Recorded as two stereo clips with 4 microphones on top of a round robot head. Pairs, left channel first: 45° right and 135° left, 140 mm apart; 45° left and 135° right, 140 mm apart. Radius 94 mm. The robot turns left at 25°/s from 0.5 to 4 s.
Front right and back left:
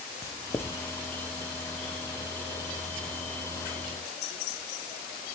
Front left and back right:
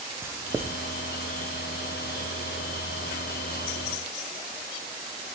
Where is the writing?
85° right, 0.7 m; by 0.8 s 95° right, 0.7 m.